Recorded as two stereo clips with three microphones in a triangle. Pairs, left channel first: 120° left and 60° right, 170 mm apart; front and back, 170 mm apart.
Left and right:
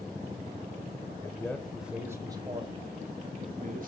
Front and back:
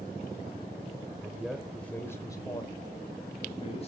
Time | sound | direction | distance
1.2 | a man speaking | 120° left | 1.0 m